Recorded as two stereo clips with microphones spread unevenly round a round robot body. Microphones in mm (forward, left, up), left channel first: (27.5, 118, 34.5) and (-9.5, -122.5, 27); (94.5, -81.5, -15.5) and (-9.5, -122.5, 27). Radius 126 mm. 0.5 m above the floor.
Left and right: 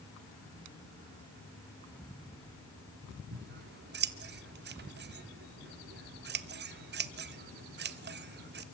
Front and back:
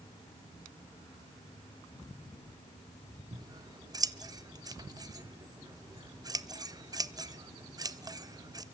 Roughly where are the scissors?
Right.